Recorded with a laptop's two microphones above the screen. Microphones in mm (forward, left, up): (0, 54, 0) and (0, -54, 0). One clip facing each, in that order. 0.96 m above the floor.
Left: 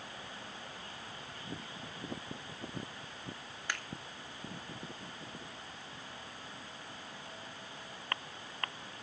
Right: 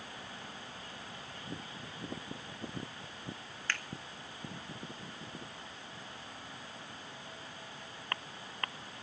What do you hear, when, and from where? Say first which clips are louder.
3.7 s a finger snap: right 1 dB; 15° left (ahead or behind), 1.8 m